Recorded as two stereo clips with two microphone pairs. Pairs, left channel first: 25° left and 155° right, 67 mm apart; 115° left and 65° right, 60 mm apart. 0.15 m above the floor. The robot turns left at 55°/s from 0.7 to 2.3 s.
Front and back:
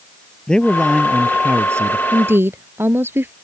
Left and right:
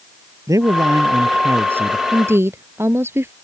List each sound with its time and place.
0.5 s a man speaking: 55° right; by 2.0 s 125° right
2.1 s a woman speaking: 95° right; by 3.3 s 105° right